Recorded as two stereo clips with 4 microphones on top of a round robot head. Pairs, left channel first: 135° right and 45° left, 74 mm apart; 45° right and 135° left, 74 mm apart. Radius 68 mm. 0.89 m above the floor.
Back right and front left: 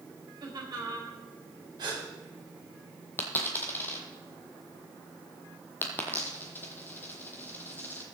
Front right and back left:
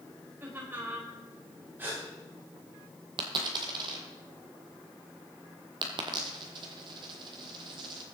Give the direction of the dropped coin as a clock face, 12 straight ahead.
7 o'clock.